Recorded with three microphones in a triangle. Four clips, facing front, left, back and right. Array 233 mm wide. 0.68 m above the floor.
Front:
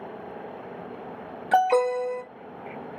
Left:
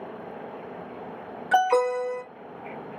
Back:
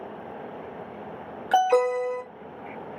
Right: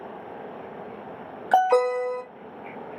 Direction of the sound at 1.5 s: 75° right.